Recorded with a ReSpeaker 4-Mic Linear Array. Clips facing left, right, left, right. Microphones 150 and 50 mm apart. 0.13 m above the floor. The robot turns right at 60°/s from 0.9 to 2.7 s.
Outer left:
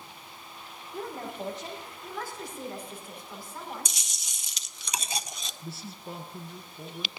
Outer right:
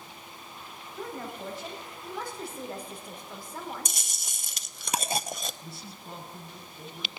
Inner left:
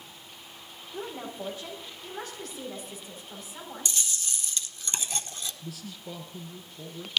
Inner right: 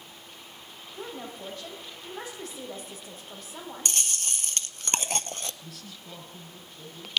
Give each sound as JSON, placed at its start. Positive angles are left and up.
{"t": 0.9, "sound": "a woman speaking", "azimuth_deg": 120, "distance_m": 5.0}
{"t": 3.9, "sound": "chewing", "side_deg": -55, "distance_m": 0.6}
{"t": 5.6, "sound": "a man speaking", "side_deg": 0, "distance_m": 1.7}